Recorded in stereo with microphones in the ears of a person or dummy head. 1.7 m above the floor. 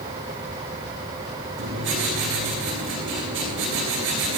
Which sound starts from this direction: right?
Writing, at 1.6 s.